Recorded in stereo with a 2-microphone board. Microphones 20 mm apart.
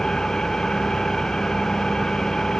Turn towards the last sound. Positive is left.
turn(degrees=35)  # may be behind; listen again after turning